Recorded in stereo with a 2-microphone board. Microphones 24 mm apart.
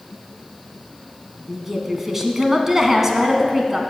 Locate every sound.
1.5 s a woman speaking: 15° right (ahead or behind), 1.7 m